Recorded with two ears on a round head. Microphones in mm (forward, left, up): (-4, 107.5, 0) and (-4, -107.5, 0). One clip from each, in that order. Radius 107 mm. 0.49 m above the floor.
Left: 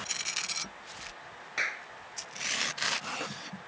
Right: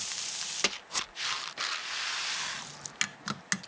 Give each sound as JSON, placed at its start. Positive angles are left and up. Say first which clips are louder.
{"t": 1.6, "sound": "a clap", "louder": "left 1 dB", "side_deg": 65}